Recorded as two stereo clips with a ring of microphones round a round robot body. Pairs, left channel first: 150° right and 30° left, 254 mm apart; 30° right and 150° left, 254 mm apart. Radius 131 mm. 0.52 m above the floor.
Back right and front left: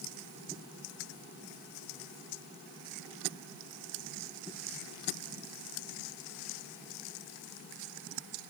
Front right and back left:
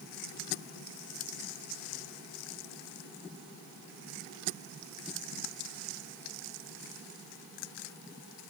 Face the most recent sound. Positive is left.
No sound to turn to.